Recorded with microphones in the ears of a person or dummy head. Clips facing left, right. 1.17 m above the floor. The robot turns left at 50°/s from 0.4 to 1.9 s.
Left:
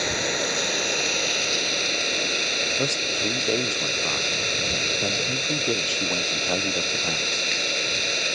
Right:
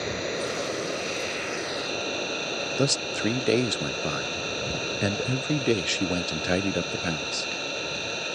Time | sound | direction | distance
0.0 | an engine running | 110° left | ?
2.8 | a man speaking | 20° right (ahead or behind) | ?